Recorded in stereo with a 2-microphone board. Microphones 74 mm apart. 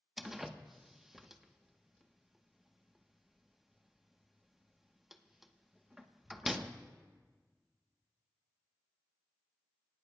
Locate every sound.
0.2 s a door slam: 5° right (ahead or behind), 1.0 m